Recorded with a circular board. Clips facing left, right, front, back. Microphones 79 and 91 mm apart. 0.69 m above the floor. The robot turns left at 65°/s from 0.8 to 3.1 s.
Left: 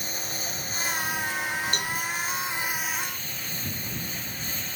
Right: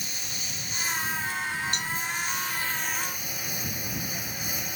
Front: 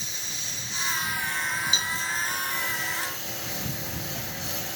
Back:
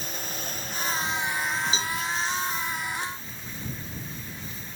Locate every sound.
0.0 s a lawn mower: 135° left; by 4.8 s 15° right
1.7 s a cowbell: 125° left; by 1.9 s 110° left